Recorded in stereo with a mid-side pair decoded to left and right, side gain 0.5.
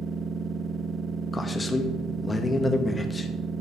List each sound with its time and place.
0.0 s a machine running: 50° right, 0.9 m
1.3 s a man speaking: 20° left, 1.4 m